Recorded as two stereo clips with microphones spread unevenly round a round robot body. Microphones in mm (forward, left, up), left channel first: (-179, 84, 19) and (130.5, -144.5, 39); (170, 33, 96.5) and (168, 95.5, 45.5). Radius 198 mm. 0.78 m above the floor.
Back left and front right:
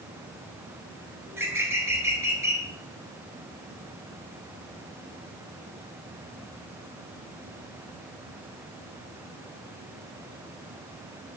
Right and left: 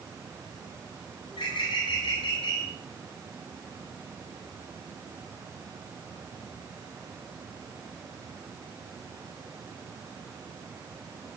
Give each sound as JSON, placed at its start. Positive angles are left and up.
{"t": 1.3, "sound": "a bird", "azimuth_deg": -120, "distance_m": 5.0}